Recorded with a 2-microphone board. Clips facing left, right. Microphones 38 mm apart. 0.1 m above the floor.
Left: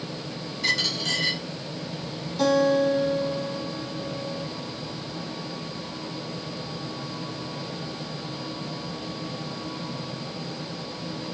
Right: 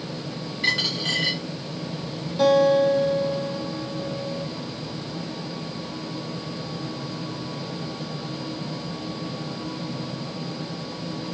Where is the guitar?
15° right (ahead or behind), 2.5 m.